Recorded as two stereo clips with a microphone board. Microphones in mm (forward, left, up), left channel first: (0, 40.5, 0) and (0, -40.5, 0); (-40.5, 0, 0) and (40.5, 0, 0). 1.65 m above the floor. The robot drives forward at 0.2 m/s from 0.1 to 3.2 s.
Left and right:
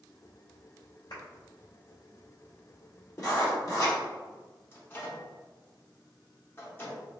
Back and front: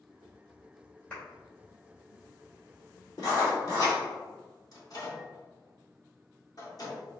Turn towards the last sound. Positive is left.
turn(degrees=150)